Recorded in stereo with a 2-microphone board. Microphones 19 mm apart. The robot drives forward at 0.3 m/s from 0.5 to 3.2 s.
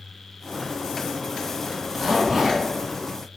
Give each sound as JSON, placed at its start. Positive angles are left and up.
{"t": 1.7, "sound": "a zipper", "side_deg": -25, "distance_m": 0.7}